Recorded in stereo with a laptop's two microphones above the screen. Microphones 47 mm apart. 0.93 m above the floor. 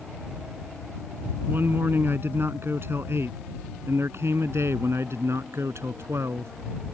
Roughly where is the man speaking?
Right.